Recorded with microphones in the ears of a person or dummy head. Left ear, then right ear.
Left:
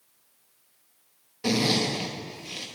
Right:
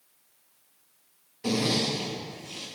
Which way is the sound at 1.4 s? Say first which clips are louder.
Left 2 dB; 20° left (ahead or behind).